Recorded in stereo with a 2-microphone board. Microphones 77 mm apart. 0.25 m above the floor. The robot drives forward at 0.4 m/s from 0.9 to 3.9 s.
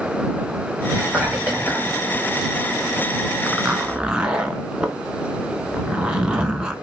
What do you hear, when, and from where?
0.9 s whispering: 20° right (ahead or behind), 1.3 m
3.5 s a zipper: 15° right (ahead or behind), 0.8 m; by 6.8 s 10° right (ahead or behind), 0.9 m